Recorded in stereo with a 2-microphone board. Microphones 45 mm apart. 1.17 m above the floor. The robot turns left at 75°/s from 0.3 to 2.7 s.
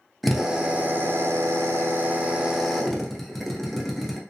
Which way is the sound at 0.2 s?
Straight ahead.